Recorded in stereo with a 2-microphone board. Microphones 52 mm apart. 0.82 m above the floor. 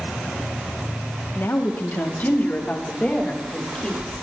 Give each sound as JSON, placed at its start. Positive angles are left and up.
{"t": 1.4, "sound": "a woman speaking", "side_deg": 55, "distance_m": 1.8}